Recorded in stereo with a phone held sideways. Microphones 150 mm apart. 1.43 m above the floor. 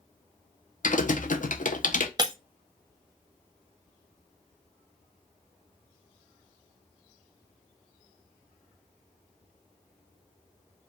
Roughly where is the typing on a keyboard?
Left.